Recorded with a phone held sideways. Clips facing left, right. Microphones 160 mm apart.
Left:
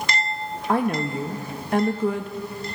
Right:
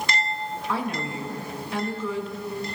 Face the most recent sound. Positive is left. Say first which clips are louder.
# left 8 dB
turn(degrees=50)  # may be behind; listen again after turning